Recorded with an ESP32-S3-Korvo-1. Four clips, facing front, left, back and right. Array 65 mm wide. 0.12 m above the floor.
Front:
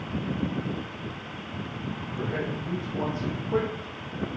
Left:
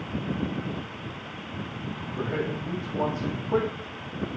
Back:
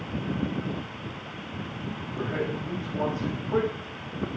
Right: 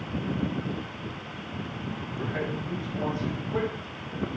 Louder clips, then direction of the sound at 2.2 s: Left 3 dB, back 2 dB; 105° left.